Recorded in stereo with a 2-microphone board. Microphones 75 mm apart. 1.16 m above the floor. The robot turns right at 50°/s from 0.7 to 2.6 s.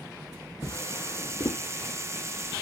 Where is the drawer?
65° left (ahead or behind), 1.7 m; by 1.6 s 70° left (ahead or behind), 1.7 m.